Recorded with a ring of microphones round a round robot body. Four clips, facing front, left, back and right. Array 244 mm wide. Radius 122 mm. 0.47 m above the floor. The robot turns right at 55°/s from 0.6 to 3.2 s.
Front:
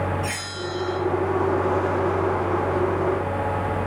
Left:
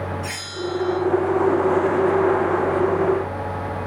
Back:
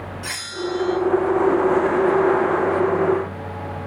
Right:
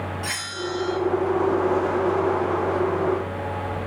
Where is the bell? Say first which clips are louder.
Left 2 dB, back 2 dB; 150° right, 0.5 m; by 1.0 s 130° right, 0.5 m.